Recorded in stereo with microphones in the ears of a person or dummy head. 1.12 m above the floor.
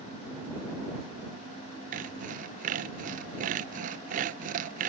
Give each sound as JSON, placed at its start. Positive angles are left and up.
{"t": 1.9, "sound": "sawing", "side_deg": -45}